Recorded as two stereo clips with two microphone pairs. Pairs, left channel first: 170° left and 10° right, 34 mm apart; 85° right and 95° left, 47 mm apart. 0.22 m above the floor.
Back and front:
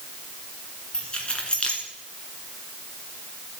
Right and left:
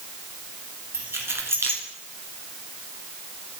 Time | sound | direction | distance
0.9 | keys jangling | 110° left | 1.9 m